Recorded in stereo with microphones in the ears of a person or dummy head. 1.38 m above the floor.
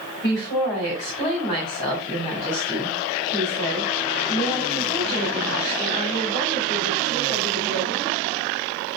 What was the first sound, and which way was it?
A woman speaking, 20° left (ahead or behind).